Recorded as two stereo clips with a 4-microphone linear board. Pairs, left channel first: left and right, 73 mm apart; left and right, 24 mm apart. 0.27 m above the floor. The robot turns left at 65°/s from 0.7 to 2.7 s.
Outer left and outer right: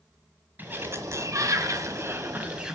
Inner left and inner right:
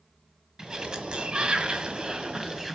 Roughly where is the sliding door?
Ahead right.